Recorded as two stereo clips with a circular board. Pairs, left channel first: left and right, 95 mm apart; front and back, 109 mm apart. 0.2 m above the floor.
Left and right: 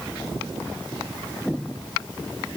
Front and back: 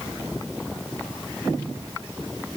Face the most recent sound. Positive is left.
No sound to turn to.